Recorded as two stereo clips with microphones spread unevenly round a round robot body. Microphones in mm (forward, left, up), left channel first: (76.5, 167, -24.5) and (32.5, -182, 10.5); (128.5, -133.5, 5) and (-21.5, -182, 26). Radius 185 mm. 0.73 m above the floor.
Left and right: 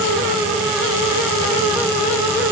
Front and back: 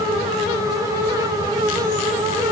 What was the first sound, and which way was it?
Only background noise.